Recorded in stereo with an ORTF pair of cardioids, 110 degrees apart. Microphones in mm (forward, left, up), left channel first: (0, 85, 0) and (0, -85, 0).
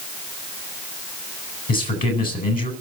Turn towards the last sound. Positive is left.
turn(degrees=55)